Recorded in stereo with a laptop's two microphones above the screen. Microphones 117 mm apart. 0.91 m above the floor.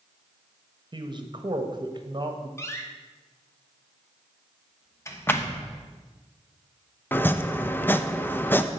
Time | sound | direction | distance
0.9 | a man speaking | 40° right (ahead or behind) | 1.2 m
2.6 | a door slam | 25° left (ahead or behind) | 0.9 m
5.3 | a clap | 15° left (ahead or behind) | 0.9 m
7.1 | chopping | 15° left (ahead or behind) | 0.6 m